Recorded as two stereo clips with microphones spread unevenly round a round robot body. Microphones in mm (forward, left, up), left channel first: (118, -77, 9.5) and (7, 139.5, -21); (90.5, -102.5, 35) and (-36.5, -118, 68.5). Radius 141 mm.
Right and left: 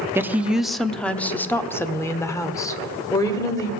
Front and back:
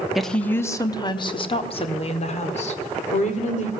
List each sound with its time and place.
0.1 s a woman speaking: 65° left, 0.6 m; by 3.7 s 15° left, 2 m